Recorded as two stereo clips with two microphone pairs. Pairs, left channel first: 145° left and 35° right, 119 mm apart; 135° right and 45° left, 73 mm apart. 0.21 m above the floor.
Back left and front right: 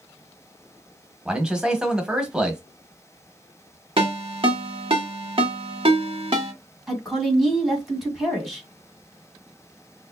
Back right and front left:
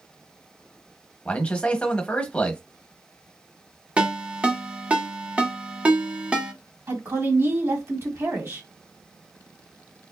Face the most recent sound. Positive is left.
turn(degrees=55)